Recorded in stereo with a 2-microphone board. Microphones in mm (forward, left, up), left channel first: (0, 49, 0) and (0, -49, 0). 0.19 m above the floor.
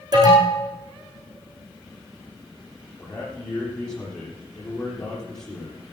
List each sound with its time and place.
0.1 s an alarm: 40° right (ahead or behind), 7 m
3.0 s a man speaking: 10° left (ahead or behind), 7.5 m